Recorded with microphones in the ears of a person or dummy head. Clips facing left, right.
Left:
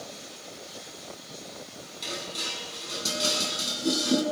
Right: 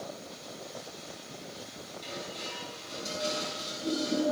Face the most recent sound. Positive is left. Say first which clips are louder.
# left 3 dB
turn(degrees=80)